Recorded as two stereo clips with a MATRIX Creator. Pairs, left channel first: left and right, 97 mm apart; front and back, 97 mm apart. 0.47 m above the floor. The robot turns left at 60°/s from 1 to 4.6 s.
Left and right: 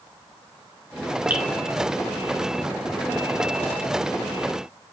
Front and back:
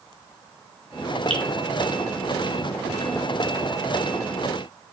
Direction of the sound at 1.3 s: 160° right.